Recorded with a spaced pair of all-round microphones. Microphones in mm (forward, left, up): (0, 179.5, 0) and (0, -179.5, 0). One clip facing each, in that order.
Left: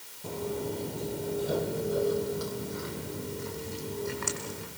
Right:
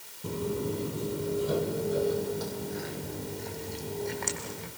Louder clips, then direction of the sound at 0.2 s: Right 2 dB; 25° right (ahead or behind).